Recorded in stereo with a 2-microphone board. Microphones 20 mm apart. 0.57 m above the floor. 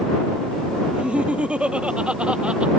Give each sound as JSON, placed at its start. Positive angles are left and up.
{"t": 0.9, "sound": "laughter", "side_deg": -65}